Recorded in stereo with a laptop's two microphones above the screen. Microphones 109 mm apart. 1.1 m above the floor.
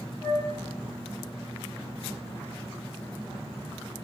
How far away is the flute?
About 1.9 m.